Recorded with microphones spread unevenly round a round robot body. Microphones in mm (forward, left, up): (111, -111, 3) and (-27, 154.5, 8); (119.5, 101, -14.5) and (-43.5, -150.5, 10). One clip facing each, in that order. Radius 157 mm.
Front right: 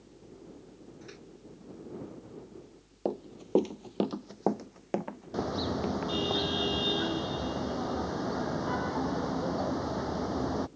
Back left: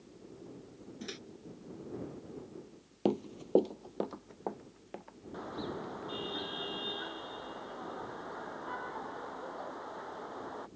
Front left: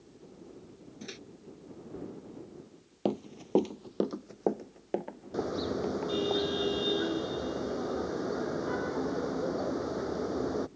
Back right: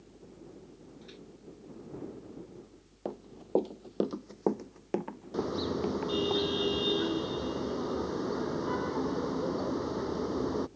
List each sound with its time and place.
1.0 s a microwave: 85° left
3.0 s running footsteps: 70° left; by 6.3 s 60° right
5.3 s a car horn: 40° right